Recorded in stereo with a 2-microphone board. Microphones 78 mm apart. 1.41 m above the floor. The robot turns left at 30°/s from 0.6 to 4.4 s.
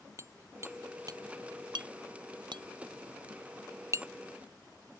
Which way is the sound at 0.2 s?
40° right (ahead or behind).